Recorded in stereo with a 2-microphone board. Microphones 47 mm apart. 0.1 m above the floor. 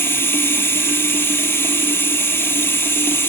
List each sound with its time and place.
0.0 s running water: 50° left (ahead or behind), 2.5 m